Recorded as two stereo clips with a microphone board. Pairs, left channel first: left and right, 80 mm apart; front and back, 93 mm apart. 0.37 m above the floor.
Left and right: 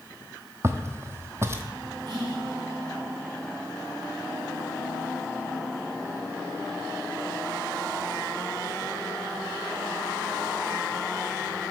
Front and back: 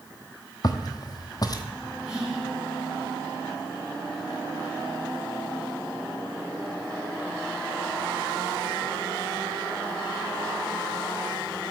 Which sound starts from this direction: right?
Whispering, at 2.1 s.